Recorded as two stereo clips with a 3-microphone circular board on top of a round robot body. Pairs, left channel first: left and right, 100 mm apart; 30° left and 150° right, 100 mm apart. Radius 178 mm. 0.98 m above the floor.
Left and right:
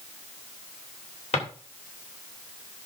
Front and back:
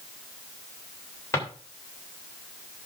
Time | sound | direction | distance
1.3 | a drawer | 95° left | 3 m